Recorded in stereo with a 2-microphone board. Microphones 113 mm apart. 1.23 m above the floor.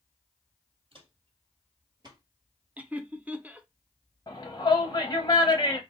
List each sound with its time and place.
0.9 s footsteps: 50° right (ahead or behind), 1.8 m; by 2.2 s 35° right (ahead or behind), 1.4 m
2.8 s laughter: 15° right (ahead or behind), 0.5 m
4.3 s a shout: 30° left (ahead or behind), 0.9 m